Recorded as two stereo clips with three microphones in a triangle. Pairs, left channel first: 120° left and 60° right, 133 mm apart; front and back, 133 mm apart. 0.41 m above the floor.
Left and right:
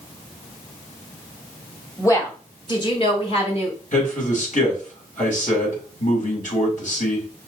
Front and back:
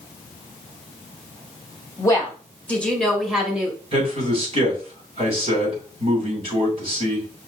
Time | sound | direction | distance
2.0 | a woman speaking | 55° left | 1.7 m
3.9 | a man speaking | 135° left | 2.5 m